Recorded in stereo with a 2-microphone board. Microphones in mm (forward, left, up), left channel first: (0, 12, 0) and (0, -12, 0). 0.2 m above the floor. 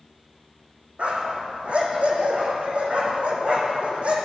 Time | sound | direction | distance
1.0 | a dog barking | 60° right (ahead or behind) | 3.5 m